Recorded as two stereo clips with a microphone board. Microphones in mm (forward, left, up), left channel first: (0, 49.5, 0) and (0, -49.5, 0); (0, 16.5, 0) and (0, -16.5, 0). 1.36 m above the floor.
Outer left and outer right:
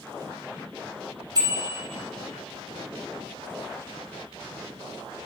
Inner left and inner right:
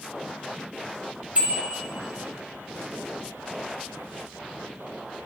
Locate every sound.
1.4 s a bicycle bell: 40° right (ahead or behind), 5 m